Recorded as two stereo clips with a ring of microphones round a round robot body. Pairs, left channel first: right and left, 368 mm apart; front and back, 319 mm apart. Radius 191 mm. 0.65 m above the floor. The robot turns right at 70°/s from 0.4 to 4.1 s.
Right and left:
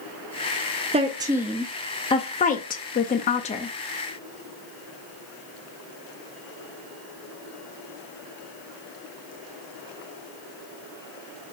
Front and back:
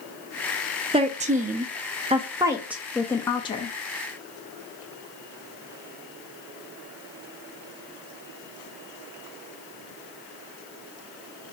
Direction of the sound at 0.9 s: 135° left.